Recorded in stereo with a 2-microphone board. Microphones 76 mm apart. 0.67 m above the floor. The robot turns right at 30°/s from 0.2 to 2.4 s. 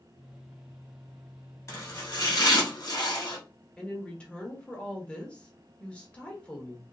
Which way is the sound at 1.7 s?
45° left (ahead or behind).